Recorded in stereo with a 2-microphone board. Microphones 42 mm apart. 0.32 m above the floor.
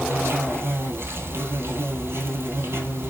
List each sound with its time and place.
0.0 s an insect: 70° right (ahead or behind), 1.5 m